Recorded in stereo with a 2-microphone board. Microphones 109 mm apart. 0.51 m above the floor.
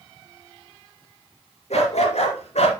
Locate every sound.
1.7 s a dog barking: 85° left, 2.5 m; by 2.7 s 80° left, 1.7 m